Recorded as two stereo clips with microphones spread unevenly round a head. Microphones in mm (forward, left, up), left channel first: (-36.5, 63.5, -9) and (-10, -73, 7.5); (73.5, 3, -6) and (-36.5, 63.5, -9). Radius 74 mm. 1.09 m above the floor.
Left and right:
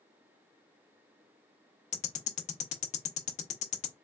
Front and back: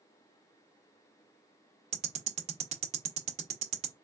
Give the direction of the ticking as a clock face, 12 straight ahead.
8 o'clock.